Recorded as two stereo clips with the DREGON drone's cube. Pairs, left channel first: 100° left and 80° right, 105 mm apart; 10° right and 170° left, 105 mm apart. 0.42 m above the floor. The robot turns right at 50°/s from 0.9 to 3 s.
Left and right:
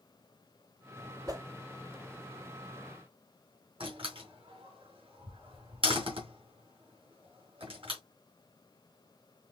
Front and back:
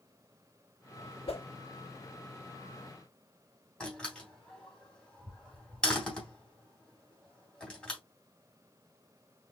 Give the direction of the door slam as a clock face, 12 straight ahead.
3 o'clock.